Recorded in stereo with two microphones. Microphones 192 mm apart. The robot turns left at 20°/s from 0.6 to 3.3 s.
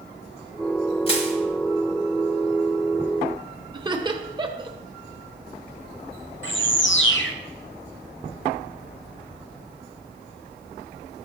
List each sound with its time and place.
1.1 s crushing: 30° left (ahead or behind), 1.4 m; by 1.3 s 35° left (ahead or behind), 1.4 m
3.7 s laughter: 25° right (ahead or behind), 0.8 m
6.4 s a bird: 85° left, 0.6 m